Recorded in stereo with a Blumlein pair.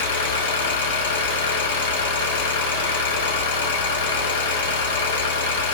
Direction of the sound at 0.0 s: 60° left.